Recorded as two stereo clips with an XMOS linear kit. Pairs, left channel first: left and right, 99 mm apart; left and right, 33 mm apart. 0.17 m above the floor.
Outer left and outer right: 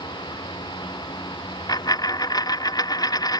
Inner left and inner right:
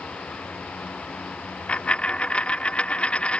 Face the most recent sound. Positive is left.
turn(degrees=40)  # may be behind; listen again after turning